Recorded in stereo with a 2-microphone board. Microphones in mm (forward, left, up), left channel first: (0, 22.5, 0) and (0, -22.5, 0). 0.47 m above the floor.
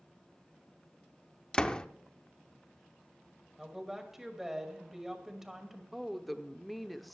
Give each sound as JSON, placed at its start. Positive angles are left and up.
{"t": 1.5, "sound": "a door slam", "side_deg": 20, "distance_m": 0.6}
{"t": 3.6, "sound": "a woman speaking", "side_deg": -5, "distance_m": 2.0}
{"t": 5.9, "sound": "a woman speaking", "side_deg": 0, "distance_m": 0.9}